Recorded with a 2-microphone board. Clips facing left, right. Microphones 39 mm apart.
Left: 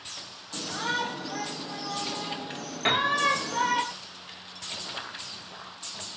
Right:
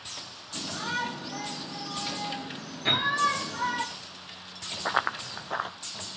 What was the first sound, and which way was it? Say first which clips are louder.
A shout: left 2 dB; 60° left (ahead or behind).